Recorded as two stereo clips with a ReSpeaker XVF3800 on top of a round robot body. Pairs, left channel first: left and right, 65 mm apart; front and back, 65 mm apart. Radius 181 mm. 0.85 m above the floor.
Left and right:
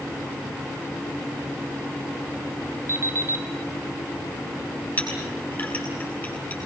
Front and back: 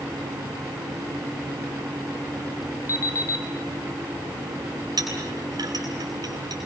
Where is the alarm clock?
40° right, 2.5 m.